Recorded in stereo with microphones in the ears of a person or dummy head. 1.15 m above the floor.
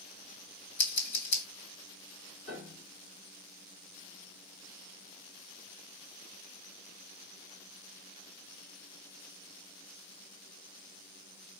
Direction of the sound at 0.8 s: 65° left (ahead or behind).